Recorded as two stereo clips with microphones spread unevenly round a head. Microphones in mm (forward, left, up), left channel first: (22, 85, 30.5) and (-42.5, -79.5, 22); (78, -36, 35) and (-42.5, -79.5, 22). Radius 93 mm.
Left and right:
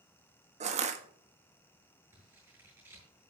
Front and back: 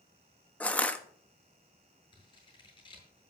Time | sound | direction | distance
0.6 | crushing | 60° right | 1.6 m
2.1 | scissors | 30° right | 8.5 m